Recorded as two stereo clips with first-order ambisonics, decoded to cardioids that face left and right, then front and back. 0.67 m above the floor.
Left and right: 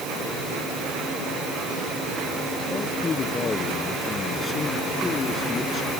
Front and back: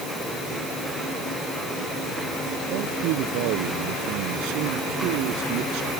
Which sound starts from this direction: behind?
A man speaking, at 2.7 s.